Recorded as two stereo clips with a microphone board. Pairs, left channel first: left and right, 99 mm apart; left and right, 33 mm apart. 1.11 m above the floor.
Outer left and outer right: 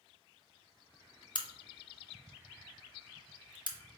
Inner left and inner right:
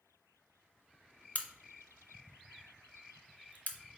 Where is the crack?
50° left (ahead or behind), 0.5 m.